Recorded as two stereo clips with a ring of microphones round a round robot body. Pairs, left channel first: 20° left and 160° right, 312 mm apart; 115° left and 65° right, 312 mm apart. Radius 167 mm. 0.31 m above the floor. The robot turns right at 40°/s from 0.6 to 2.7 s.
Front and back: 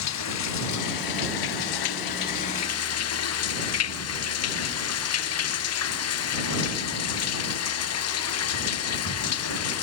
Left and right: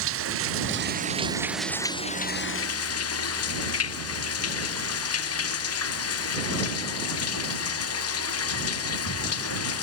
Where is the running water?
15° right; by 9.8 s 65° left.